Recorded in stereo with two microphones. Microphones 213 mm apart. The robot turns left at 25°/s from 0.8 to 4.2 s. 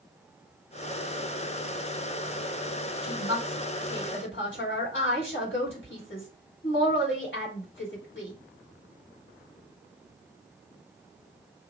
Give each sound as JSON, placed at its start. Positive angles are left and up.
{"t": 3.0, "sound": "a woman speaking", "side_deg": 50, "distance_m": 2.5}